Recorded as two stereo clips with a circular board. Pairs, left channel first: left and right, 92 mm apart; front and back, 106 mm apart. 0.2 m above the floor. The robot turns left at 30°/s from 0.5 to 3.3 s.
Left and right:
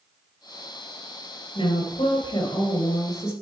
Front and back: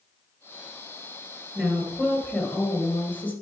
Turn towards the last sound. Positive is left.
turn(degrees=35)